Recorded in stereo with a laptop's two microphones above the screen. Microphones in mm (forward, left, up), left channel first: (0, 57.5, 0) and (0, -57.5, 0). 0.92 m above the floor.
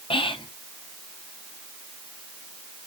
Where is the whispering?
55° left (ahead or behind), 0.6 m.